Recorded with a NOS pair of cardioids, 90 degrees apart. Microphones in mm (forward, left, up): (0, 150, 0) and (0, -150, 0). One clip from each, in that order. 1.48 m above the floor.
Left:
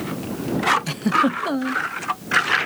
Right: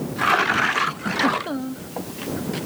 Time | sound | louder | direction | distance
0.9 | a giggle | left 2 dB | 45° left | ?